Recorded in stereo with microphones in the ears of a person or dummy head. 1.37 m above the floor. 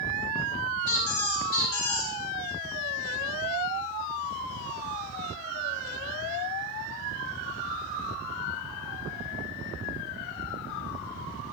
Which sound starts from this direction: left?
A squeak, at 0.9 s.